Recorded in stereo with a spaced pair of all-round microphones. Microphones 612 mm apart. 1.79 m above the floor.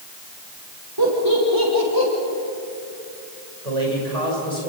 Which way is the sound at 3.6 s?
70° right (ahead or behind).